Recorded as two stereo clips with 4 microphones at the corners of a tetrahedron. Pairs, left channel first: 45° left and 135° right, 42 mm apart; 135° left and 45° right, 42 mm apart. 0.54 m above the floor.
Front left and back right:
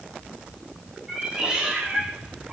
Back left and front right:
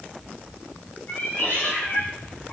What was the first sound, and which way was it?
A cat meowing, 155° left.